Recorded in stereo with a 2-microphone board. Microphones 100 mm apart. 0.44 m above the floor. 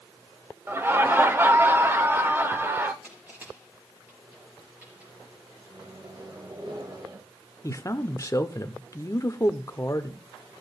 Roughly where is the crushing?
Centre.